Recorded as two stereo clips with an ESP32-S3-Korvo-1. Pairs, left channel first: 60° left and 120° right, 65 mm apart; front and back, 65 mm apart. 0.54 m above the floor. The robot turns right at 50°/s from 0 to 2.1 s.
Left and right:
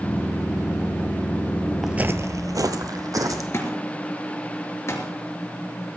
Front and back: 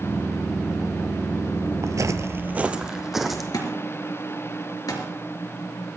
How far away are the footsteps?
About 0.8 m.